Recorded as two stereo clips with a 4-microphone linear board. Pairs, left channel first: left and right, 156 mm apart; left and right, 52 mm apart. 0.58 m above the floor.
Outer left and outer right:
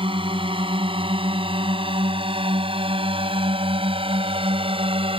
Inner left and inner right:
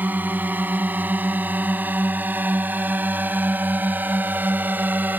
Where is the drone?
35° right (ahead or behind).